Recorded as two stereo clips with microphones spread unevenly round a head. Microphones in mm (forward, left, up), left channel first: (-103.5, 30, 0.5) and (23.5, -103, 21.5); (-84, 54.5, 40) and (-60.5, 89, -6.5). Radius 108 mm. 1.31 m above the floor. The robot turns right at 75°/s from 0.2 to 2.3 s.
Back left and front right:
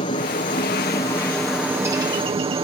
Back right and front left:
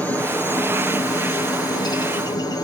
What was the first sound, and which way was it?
A helicopter, 115° left.